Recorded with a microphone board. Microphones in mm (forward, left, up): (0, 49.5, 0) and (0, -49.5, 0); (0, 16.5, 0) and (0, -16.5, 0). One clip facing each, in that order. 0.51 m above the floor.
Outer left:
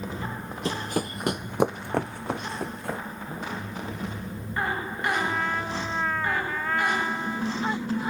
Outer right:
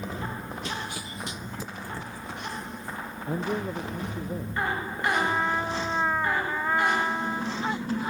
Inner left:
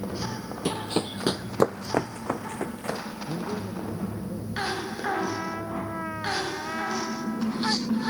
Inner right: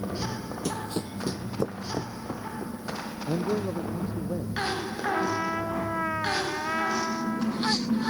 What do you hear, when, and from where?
0.7 s running footsteps: 35° left (ahead or behind); by 3.0 s 75° left (ahead or behind)
3.3 s a man speaking: 70° right (ahead or behind)
5.1 s a trumpet: 15° right (ahead or behind)